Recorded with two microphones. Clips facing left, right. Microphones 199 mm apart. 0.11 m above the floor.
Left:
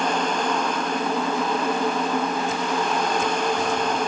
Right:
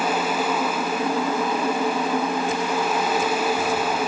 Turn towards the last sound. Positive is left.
No sound to turn to.